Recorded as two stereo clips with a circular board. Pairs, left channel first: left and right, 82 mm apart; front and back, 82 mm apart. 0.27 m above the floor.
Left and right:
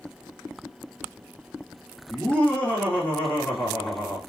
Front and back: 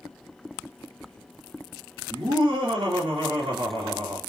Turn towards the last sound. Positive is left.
turn(degrees=165)